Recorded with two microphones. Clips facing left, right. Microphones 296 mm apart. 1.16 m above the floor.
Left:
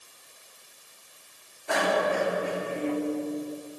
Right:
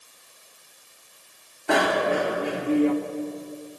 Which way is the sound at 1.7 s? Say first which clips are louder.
Right 4 dB; 80° right.